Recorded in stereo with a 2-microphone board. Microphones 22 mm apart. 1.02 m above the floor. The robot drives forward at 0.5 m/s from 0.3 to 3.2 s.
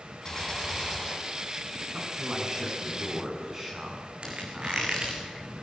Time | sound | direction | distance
0.2 | a gunshot | 15° left (ahead or behind) | 7.5 m
1.9 | a man speaking | 25° right (ahead or behind) | 9.5 m
4.2 | a squeak | 55° right (ahead or behind) | 4 m